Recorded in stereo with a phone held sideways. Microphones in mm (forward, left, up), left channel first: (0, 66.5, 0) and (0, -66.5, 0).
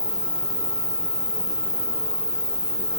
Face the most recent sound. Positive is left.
turn(degrees=30)  # may be behind; listen again after turning